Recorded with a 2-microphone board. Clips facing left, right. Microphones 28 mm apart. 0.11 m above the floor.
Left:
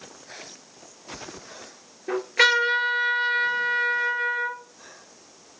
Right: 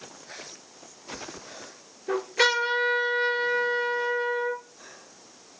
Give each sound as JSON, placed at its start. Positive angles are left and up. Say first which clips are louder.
{"t": 2.1, "sound": "a trumpet", "louder": "left 3 dB", "side_deg": 35, "distance_m": 2.5}